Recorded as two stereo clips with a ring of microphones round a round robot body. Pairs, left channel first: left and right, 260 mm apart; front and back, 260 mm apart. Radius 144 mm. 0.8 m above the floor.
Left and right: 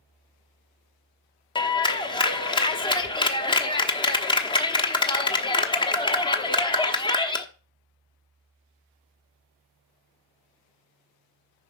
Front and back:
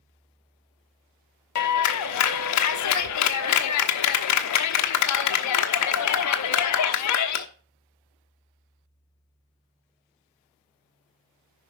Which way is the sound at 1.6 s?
15° left.